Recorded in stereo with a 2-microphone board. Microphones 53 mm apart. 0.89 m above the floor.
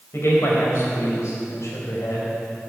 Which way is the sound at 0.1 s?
60° left (ahead or behind).